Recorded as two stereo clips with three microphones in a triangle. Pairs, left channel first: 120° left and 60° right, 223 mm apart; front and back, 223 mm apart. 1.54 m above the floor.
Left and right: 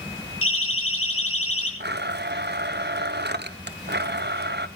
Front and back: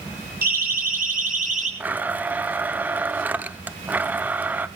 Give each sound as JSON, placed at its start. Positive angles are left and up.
{"t": 0.4, "sound": "a siren", "azimuth_deg": 135, "distance_m": 7.0}
{"t": 1.8, "sound": "a blender", "azimuth_deg": -95, "distance_m": 0.8}